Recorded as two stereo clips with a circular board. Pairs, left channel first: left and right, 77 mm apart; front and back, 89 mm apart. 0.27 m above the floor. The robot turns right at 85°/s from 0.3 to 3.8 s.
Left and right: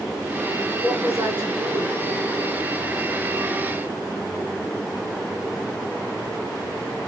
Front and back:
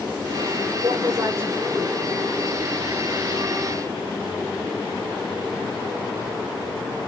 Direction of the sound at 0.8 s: 165° right.